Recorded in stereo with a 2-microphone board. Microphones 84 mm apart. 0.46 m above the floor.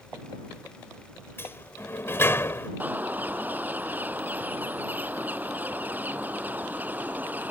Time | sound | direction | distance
1.4 | a sliding door | 30° left (ahead or behind) | ?
2.8 | a bird | 20° right (ahead or behind) | ?